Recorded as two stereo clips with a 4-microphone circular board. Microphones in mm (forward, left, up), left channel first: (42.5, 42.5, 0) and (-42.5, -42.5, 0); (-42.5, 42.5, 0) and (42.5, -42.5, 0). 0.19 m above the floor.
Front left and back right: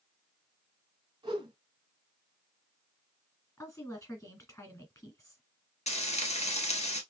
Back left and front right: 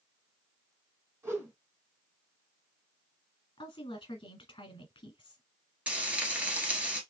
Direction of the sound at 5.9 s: 35° left.